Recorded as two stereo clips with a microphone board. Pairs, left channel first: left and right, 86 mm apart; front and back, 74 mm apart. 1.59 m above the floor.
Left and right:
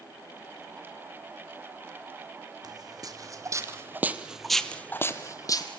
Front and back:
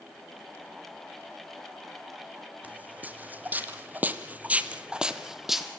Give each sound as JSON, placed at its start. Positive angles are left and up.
{"t": 2.6, "sound": "footsteps", "azimuth_deg": -115, "distance_m": 3.5}